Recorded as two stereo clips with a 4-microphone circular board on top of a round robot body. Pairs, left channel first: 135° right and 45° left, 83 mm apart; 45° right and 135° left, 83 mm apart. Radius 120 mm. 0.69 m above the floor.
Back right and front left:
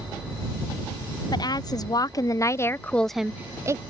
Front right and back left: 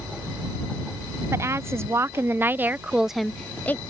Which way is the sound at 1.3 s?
170° right.